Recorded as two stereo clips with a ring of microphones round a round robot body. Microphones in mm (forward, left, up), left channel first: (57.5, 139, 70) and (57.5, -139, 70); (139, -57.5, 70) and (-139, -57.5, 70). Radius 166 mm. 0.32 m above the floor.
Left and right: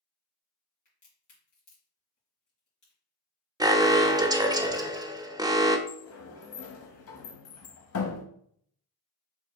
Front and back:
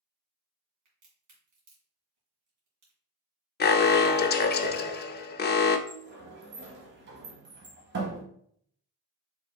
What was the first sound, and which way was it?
A crack, 155° left.